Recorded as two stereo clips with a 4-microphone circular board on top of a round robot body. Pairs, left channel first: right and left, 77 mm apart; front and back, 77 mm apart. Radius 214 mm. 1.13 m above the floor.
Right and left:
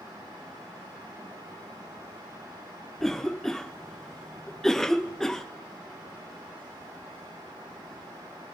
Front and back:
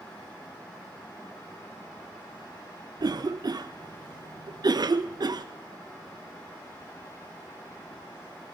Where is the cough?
175° right, 0.5 m.